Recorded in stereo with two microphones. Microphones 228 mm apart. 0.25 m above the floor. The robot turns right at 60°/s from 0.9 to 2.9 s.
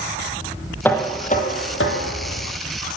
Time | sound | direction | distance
0.8 | knocking | 10° left | 7.5 m